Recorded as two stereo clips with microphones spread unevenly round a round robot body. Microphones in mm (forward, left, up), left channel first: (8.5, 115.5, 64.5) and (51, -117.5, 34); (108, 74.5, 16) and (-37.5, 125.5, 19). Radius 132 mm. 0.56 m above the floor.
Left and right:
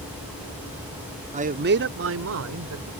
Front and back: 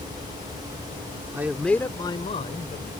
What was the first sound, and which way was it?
A man speaking, 125° right.